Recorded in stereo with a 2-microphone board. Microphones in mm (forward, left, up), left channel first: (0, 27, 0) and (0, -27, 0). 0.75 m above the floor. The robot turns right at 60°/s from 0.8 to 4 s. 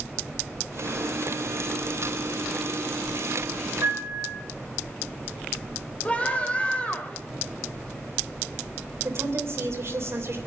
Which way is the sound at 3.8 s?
70° right (ahead or behind).